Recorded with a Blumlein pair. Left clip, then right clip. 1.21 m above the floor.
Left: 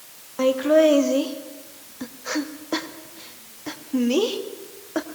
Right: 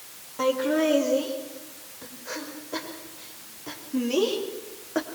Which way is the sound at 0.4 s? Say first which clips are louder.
Left 7 dB; 65° left.